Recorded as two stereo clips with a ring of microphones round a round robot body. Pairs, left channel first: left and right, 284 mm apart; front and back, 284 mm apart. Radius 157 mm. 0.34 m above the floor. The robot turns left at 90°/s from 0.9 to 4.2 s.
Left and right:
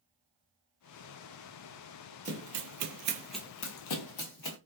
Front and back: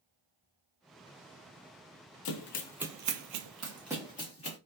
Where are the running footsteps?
20° right, 0.8 m; by 4.6 s 55° left, 1.0 m.